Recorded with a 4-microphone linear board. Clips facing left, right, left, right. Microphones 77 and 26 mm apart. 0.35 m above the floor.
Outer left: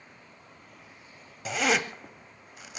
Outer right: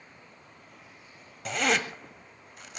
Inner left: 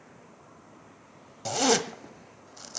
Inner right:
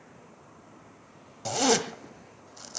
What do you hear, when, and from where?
1.4 s a zipper: 5° left (ahead or behind), 1.6 m